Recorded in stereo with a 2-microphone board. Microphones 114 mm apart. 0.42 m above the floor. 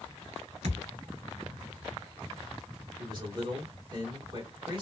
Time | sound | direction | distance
0.6 | a thud | 70° right (ahead or behind) | 1.0 m
3.0 | a man speaking | 35° right (ahead or behind) | 1.9 m